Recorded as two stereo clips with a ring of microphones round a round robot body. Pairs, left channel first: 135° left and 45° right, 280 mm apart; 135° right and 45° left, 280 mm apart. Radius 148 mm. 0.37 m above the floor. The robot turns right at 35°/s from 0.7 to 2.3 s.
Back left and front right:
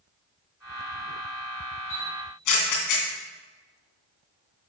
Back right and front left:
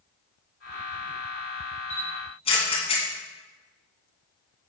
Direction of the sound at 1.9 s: 140° left.